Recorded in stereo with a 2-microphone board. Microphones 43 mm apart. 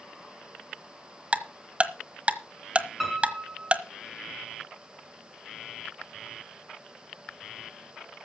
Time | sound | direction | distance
1.3 | ticking | 30° right (ahead or behind) | 1.2 m
3.0 | a piano | 5° right (ahead or behind) | 4.5 m